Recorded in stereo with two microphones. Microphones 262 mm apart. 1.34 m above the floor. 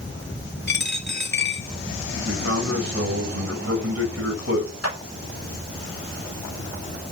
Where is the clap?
90° right, 6.5 m.